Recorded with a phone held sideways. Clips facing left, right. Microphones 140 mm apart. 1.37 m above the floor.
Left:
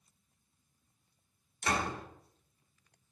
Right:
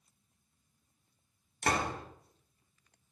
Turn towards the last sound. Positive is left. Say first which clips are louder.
# right 1 dB
turn(degrees=-60)  # may be behind; listen again after turning